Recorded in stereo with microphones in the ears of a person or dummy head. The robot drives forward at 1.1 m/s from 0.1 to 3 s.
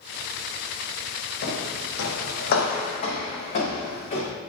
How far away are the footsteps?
About 2.5 m.